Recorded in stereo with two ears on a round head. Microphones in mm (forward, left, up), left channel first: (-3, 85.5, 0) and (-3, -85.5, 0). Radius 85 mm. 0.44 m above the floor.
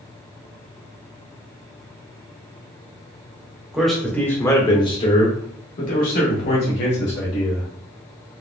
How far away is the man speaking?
About 1.1 m.